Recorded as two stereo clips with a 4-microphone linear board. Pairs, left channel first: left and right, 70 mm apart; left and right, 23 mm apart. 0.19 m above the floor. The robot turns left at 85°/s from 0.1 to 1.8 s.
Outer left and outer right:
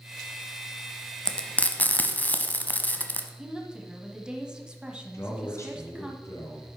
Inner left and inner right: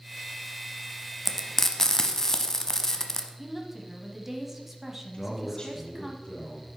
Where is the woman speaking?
10° right (ahead or behind), 1.0 m.